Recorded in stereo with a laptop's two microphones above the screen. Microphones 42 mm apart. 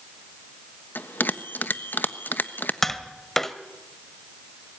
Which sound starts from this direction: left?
A bell, at 0.9 s.